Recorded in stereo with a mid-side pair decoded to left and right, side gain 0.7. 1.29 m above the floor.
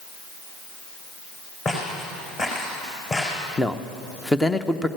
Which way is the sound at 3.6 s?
10° left.